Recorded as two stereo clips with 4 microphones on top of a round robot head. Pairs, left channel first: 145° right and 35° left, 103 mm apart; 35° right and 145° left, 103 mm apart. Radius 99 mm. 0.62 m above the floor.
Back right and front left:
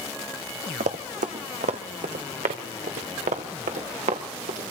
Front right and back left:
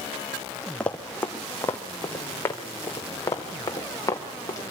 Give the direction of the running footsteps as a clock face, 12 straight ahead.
10 o'clock.